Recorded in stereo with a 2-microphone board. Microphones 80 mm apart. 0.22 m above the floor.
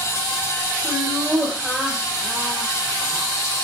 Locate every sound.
0.8 s laughter: 35° right (ahead or behind), 1.6 m; by 3.3 s 45° left (ahead or behind), 2 m